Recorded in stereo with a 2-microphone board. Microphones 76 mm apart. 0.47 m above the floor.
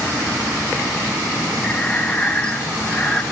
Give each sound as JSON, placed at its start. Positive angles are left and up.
{"t": 1.6, "sound": "breathing", "side_deg": 15, "distance_m": 1.2}